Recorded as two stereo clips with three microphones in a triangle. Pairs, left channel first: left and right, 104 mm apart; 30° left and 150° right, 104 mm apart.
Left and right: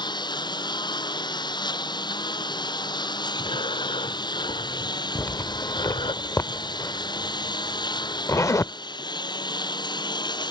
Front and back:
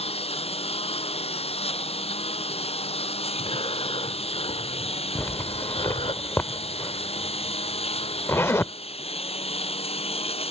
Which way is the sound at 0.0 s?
45° left.